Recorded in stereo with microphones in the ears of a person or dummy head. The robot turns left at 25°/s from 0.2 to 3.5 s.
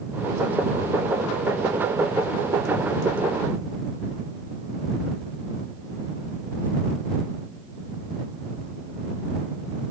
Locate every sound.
Only background noise.